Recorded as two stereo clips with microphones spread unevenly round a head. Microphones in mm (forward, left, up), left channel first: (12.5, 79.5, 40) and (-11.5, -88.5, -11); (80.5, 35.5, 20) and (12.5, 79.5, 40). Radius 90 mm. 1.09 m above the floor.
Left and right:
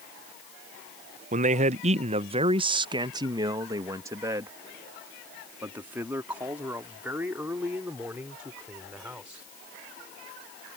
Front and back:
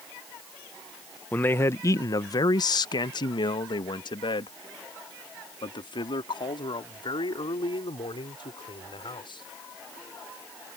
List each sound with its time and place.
1.3 s a man speaking: 95° right; by 9.4 s 15° right